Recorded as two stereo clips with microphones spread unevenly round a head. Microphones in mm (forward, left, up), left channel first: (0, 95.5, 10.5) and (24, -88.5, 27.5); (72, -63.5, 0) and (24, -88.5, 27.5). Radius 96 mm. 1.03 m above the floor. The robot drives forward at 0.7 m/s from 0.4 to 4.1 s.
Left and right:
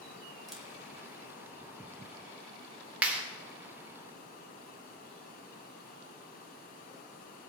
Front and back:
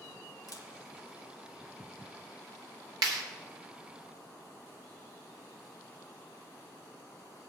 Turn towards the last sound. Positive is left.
turn(degrees=-170)